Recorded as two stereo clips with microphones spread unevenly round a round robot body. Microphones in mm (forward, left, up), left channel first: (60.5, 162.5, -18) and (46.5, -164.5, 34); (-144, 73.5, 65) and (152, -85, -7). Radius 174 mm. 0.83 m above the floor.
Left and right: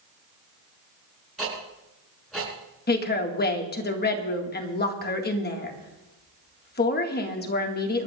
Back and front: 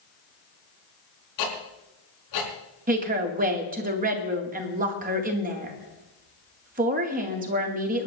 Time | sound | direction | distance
1.4 | ticking | 175° left | 5 m
2.9 | a woman speaking | 30° left | 2 m